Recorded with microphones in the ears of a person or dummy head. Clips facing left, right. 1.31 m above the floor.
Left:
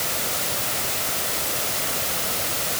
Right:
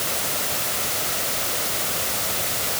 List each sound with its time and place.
Only background noise.